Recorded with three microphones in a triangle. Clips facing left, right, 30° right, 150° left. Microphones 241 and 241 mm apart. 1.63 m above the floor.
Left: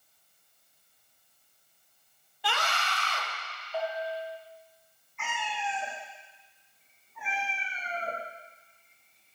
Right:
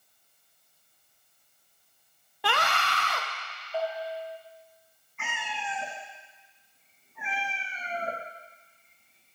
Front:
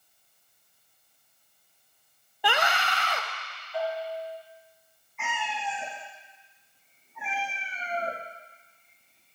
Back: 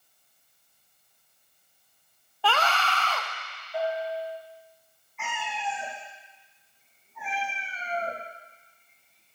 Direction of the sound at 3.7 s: 165° right.